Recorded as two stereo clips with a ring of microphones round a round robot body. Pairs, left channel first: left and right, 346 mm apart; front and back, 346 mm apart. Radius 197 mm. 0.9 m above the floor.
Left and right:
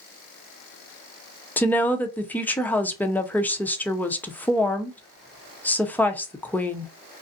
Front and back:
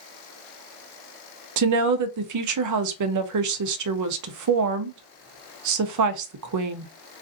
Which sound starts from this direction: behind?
A woman speaking, at 1.6 s.